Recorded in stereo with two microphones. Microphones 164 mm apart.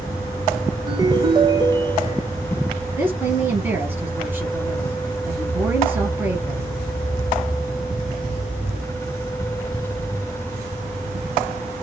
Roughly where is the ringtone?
Right.